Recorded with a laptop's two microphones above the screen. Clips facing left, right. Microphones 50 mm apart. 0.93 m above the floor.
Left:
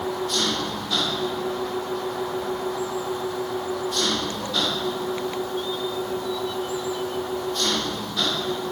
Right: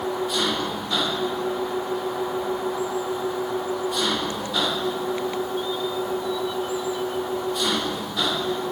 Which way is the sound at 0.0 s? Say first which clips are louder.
Right 1 dB; 10° right (ahead or behind).